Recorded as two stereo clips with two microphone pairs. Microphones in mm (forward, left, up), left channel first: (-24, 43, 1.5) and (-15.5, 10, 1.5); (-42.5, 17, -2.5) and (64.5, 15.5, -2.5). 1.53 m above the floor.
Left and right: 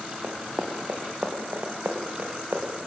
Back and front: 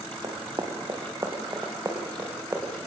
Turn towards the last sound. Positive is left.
turn(degrees=-65)